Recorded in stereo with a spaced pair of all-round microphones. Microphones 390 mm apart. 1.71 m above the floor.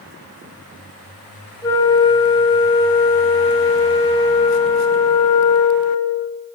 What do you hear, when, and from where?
1.6 s a flute: 15° left (ahead or behind), 3 m